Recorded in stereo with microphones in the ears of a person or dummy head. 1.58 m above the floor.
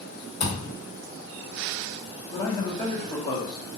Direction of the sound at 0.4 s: 40° left (ahead or behind).